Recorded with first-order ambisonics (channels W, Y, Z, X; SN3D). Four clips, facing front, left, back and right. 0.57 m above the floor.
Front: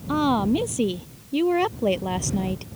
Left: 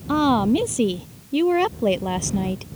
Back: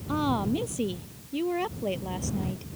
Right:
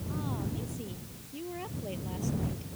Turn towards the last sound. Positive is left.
turn(degrees=55)